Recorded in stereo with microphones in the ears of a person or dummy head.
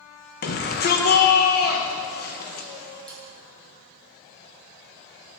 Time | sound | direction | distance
0.4 | a shout | 50° left (ahead or behind) | 1.6 m
3.1 | cutlery clinking | 5° left (ahead or behind) | 4 m